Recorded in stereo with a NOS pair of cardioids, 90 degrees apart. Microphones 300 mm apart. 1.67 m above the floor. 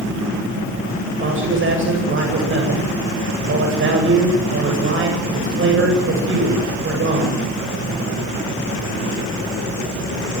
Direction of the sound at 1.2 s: 45° right.